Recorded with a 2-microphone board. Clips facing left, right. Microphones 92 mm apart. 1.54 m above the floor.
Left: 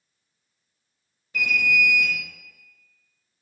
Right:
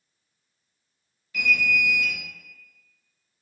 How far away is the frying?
No frying in this recording.